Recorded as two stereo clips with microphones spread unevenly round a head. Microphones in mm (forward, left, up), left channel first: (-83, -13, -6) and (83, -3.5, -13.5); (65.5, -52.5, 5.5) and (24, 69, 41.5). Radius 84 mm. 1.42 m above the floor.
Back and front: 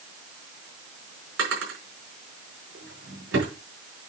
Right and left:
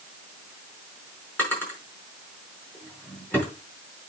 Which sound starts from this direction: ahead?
A drawer, at 1.4 s.